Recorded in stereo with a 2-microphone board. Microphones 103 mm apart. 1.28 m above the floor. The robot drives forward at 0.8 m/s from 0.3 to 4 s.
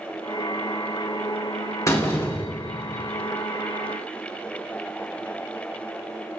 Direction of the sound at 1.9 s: 30° left (ahead or behind).